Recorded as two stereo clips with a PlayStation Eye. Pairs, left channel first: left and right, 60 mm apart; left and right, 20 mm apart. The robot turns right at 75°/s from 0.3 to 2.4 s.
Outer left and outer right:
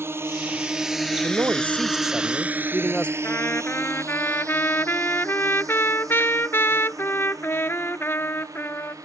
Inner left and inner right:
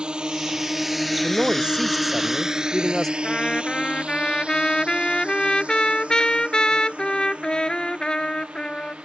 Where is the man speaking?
70° right; by 3.1 s 20° left.